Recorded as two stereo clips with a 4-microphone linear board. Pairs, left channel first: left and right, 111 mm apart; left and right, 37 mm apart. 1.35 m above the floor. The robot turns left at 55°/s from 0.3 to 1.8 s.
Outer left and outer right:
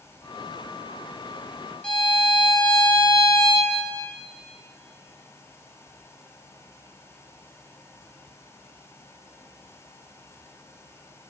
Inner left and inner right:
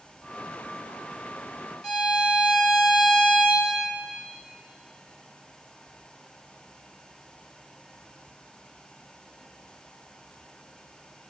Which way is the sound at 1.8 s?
10° left (ahead or behind).